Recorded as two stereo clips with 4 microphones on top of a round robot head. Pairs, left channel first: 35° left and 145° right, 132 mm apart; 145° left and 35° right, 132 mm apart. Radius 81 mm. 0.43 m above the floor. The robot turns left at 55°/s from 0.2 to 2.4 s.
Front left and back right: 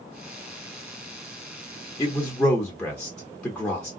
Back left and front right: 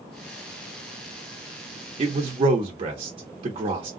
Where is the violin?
I don't hear a violin.